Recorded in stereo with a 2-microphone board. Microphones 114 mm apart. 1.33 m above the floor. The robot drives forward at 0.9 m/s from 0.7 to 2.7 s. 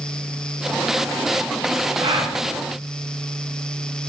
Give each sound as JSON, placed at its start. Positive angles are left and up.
{"t": 2.0, "sound": "a gasp", "side_deg": -50, "distance_m": 0.6}